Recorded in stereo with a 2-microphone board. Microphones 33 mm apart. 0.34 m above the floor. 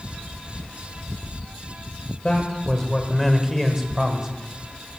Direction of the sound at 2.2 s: 20° left (ahead or behind).